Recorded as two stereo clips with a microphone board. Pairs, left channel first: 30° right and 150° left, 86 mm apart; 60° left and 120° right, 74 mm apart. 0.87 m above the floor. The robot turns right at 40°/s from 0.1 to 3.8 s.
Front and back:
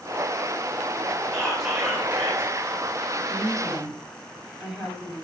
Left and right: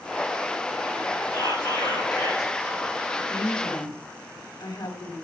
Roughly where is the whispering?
Ahead left.